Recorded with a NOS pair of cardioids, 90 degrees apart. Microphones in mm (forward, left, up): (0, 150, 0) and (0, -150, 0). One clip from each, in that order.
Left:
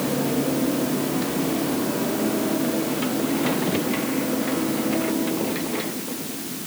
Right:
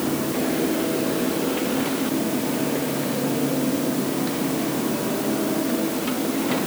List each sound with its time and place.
Only background noise.